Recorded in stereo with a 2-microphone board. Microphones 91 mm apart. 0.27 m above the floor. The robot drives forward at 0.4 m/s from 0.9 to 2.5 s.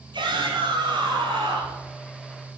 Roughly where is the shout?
Right.